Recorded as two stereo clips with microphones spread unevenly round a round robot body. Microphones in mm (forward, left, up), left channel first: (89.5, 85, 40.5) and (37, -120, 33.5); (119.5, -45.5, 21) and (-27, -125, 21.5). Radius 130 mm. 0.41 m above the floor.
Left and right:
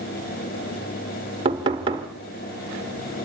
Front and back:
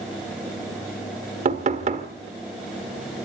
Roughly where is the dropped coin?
I don't hear a dropped coin.